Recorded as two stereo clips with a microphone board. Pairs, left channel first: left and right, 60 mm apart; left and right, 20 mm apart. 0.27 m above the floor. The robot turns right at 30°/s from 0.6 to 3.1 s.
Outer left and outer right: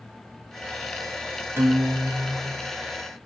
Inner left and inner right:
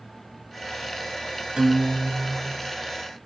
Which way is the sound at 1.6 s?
115° right.